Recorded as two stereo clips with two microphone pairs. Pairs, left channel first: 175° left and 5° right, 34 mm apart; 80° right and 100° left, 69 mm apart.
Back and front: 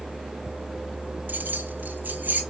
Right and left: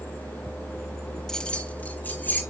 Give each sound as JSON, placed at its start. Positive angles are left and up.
{"t": 1.3, "sound": "keys jangling", "azimuth_deg": 5, "distance_m": 0.7}